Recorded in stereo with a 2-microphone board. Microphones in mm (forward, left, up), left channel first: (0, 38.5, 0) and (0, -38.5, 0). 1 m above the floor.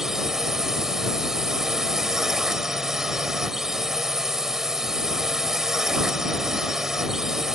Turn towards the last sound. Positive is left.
turn(degrees=-5)  # may be behind; listen again after turning